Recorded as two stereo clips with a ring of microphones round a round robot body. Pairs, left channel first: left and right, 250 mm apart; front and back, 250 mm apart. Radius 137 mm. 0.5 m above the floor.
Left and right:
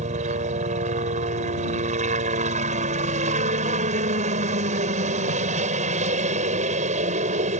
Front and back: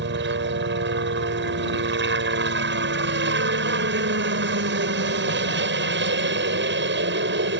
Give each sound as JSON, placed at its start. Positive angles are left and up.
{"t": 0.0, "sound": "a helicopter", "azimuth_deg": -150}